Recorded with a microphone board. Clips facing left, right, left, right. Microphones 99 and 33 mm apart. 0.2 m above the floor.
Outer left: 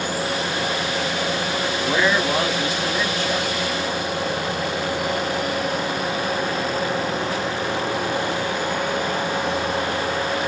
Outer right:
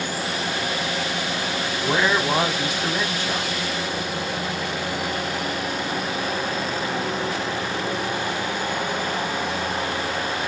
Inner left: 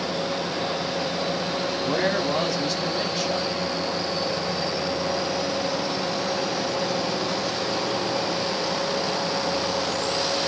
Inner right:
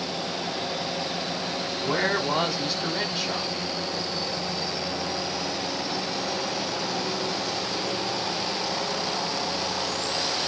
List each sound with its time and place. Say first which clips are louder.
1.8 s a man speaking: even, even; 20° right (ahead or behind), 1.0 m